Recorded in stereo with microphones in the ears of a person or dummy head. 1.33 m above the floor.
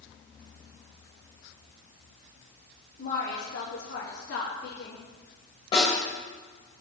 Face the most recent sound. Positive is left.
turn(degrees=25)  # may be behind; listen again after turning